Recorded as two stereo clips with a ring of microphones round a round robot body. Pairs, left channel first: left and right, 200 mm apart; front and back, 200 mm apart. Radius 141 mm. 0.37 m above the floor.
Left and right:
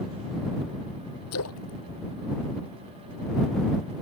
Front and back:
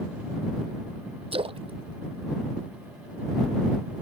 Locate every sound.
1.3 s a splash: 120° left